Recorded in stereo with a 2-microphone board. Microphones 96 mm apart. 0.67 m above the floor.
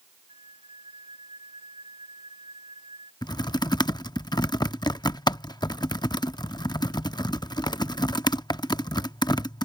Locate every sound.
0.3 s a flute: 65° right (ahead or behind)
3.2 s typing on a keyboard: 45° left (ahead or behind)